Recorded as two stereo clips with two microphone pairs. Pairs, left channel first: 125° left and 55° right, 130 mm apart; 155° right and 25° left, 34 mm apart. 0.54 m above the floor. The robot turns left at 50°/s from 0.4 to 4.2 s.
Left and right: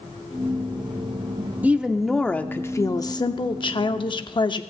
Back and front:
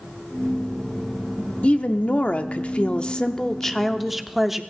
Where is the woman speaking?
130° right, 0.8 m; by 4.6 s 105° left, 0.8 m.